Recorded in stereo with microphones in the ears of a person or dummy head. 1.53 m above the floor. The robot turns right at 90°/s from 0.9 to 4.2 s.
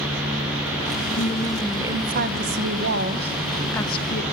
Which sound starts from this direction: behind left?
A woman speaking, at 1.2 s.